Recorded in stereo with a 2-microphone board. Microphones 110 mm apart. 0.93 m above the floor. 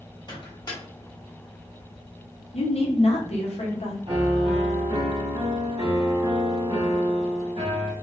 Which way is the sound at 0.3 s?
40° left (ahead or behind).